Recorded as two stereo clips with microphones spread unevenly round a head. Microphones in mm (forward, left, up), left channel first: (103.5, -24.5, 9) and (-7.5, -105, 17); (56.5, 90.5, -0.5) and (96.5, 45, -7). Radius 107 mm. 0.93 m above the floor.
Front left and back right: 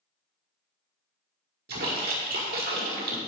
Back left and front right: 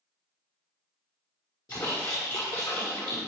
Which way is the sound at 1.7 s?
165° right.